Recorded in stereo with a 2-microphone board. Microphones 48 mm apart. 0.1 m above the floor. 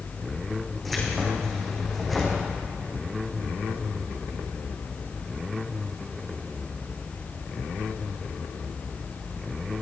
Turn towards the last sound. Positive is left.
turn(degrees=5)  # may be behind; listen again after turning